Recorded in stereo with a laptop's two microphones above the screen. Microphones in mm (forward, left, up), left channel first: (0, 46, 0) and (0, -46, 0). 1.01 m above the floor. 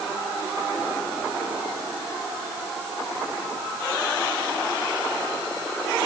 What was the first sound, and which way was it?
Only background noise.